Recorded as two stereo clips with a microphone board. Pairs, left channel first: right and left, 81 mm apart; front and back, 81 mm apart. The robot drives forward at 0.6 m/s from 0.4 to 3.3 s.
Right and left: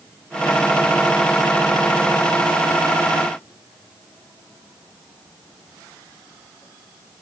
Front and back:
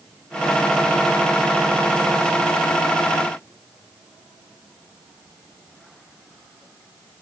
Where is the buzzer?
I don't hear a buzzer.